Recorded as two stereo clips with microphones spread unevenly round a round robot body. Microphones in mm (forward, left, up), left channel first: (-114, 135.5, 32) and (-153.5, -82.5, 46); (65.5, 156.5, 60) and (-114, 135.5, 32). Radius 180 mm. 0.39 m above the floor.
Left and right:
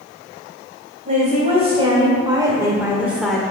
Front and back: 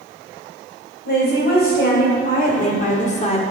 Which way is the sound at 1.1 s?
35° right.